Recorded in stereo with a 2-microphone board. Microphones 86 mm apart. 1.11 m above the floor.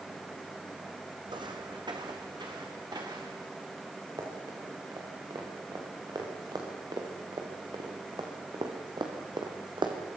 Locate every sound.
1.3 s footsteps: 65° right (ahead or behind), 3 m; by 3.5 s 55° right (ahead or behind), 6 m
4.2 s running footsteps: 45° right (ahead or behind), 7 m; by 10.0 s 65° right (ahead or behind), 4 m